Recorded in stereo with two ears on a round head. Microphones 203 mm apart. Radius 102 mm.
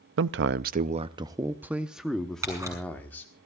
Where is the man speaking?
55° right (ahead or behind), 0.5 m; by 3.3 s 10° left (ahead or behind), 1.6 m.